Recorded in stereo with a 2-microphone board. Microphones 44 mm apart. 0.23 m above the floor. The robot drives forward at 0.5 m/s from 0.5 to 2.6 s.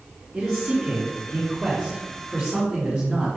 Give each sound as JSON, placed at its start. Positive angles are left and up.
{"t": 0.3, "sound": "a man speaking", "side_deg": -5, "distance_m": 2.0}